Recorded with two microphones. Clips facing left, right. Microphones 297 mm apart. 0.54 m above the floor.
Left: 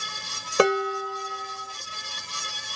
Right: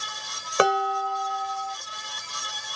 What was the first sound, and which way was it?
Dishes clattering, 35° left (ahead or behind).